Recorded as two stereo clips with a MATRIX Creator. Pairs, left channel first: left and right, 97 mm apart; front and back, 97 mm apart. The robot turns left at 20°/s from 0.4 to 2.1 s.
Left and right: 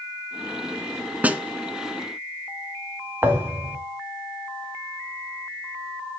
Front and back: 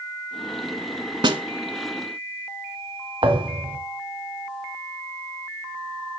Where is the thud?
155° right, 1.5 m.